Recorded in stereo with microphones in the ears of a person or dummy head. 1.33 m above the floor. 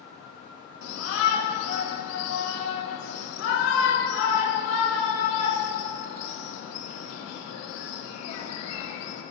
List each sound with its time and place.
0.8 s a shout: 80° left, 1.5 m